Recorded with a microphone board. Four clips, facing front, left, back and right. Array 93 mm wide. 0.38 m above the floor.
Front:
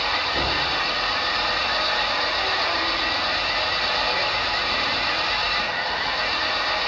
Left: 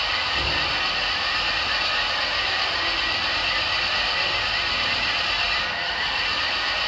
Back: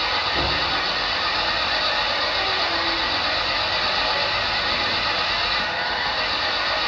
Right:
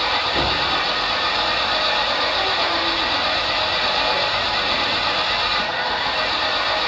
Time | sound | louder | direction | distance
0.0 | an engine running | right 5 dB, back 1 dB | 85° right | 6 m